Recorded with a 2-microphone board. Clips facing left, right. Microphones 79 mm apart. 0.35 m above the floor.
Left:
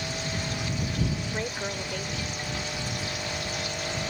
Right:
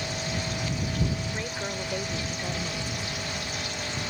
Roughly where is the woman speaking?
Left.